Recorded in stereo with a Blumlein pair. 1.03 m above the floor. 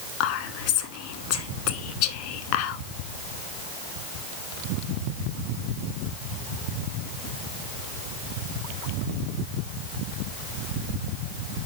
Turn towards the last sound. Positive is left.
turn(degrees=45)